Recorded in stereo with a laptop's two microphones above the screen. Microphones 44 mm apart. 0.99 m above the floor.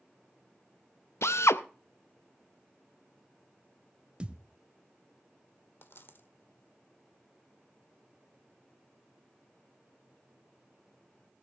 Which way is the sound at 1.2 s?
85° left.